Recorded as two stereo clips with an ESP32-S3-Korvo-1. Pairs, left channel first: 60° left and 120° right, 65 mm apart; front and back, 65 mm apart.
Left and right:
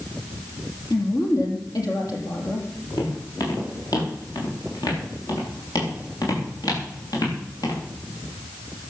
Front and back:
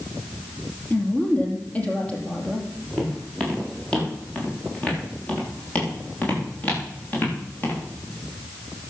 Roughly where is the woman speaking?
Ahead left.